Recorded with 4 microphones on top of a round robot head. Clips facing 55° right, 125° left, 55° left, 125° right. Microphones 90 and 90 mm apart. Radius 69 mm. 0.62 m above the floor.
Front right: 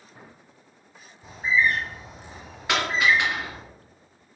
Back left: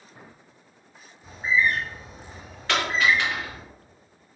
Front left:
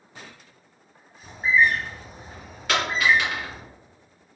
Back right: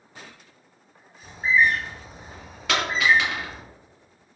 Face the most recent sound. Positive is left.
turn(degrees=-135)